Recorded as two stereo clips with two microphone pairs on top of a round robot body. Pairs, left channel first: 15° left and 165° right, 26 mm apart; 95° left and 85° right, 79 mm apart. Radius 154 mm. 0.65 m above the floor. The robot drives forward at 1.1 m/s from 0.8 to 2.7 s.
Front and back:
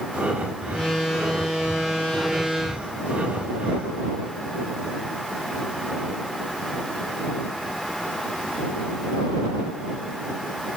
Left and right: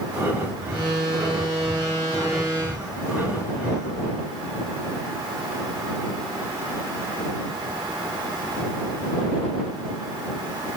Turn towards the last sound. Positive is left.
turn(degrees=-165)